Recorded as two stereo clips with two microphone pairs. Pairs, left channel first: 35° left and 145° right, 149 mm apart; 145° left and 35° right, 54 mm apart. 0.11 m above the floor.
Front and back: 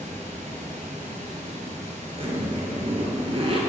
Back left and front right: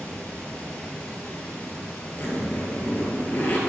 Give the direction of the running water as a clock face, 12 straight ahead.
5 o'clock.